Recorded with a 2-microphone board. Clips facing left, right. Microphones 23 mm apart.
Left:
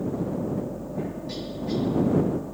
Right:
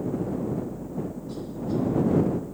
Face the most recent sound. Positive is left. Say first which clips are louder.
# even
turn(degrees=60)  # may be behind; listen again after turning